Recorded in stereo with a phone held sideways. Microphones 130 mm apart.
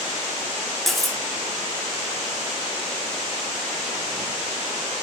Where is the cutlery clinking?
Centre (ahead or behind), 0.7 m.